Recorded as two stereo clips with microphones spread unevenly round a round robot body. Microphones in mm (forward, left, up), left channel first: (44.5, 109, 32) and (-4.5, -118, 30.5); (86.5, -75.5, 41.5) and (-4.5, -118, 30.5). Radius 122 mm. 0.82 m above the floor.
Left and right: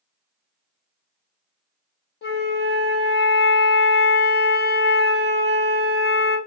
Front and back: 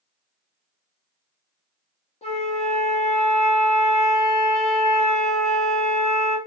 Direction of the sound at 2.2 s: 35° left.